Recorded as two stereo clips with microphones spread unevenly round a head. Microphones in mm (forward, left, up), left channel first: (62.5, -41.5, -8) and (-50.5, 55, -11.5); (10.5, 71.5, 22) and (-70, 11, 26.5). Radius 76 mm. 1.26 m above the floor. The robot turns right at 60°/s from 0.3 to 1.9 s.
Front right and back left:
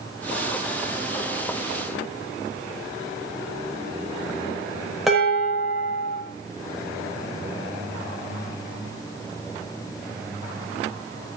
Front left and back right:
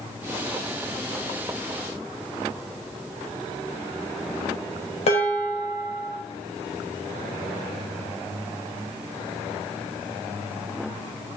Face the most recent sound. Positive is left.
turn(degrees=50)